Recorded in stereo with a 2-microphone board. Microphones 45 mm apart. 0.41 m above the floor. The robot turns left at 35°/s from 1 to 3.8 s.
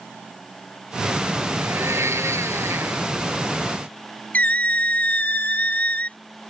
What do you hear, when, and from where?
1.6 s a blender: 65° right; by 3.1 s 115° right
4.3 s a squeak: 35° left (ahead or behind)